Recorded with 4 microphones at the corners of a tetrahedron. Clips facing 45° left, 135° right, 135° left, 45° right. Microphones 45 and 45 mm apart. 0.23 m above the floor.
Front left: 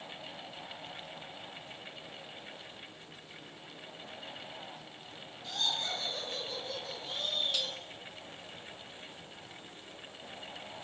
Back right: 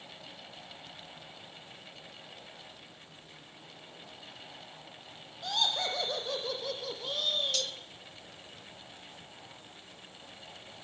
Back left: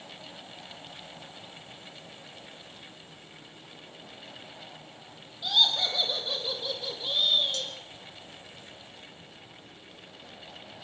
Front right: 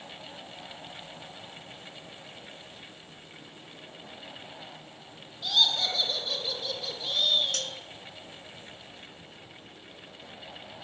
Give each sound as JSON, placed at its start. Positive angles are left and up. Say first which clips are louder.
{"t": 5.4, "sound": "laughter", "louder": "back right 4 dB, back left 1 dB", "azimuth_deg": -145, "distance_m": 7.5}
{"t": 7.5, "sound": "cutlery clinking", "louder": "even, even", "azimuth_deg": -30, "distance_m": 1.6}